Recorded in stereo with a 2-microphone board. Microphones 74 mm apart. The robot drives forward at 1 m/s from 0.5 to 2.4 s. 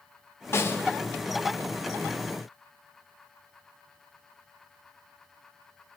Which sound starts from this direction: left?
A snare drum, at 0.5 s.